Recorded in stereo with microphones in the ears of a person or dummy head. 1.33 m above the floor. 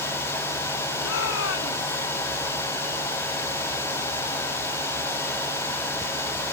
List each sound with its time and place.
1.0 s a shout: 75° left (ahead or behind); by 2.1 s 80° left